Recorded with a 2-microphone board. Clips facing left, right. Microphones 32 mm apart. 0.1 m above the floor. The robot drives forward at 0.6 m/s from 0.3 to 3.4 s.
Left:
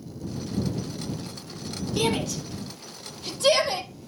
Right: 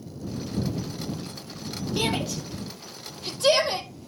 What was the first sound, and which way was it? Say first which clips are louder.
A shout: left 2 dB; 5° right (ahead or behind).